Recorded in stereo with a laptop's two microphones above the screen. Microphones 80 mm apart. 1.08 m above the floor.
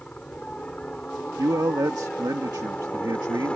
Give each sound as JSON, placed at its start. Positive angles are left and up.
{"t": 0.0, "sound": "a helicopter", "side_deg": 10}
{"t": 1.4, "sound": "a man speaking", "side_deg": -55}